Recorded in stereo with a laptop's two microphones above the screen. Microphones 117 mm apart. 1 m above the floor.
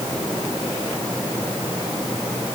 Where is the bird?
I don't hear a bird.